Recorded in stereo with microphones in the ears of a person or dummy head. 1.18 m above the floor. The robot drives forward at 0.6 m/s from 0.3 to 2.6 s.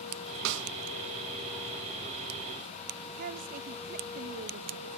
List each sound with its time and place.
0.5 s a snare drum: 65° right (ahead or behind), 0.8 m; by 0.7 s 75° right (ahead or behind), 0.8 m
3.2 s a woman speaking: 50° right (ahead or behind), 0.7 m